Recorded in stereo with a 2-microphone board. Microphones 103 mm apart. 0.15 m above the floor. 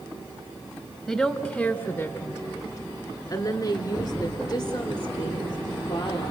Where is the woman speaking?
5° right (ahead or behind), 1.0 m; by 6.3 s 40° left (ahead or behind), 3 m.